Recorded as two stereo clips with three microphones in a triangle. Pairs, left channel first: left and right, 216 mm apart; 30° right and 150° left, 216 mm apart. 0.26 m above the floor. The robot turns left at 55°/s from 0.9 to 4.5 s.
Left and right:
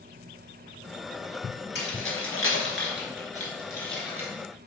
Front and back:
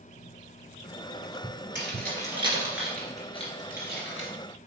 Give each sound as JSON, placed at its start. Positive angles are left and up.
{"t": 1.8, "sound": "keys jangling", "azimuth_deg": 125, "distance_m": 2.5}